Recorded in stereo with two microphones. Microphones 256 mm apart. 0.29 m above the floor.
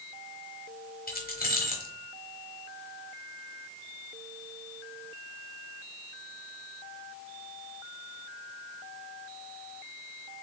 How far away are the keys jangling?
About 1.1 m.